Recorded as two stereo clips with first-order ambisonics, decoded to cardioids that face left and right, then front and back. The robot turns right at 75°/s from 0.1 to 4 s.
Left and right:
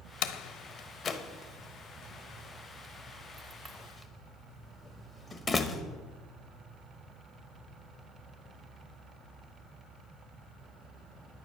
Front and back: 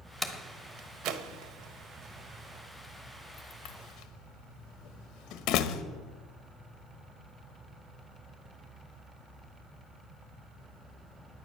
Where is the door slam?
95° left, 1.0 m; by 5.8 s 20° left, 1.0 m.